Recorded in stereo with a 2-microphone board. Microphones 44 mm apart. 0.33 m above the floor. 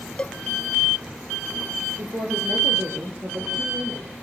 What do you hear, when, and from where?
0.2 s a cowbell: 30° left (ahead or behind), 0.6 m
2.0 s a woman speaking: 80° right, 7.5 m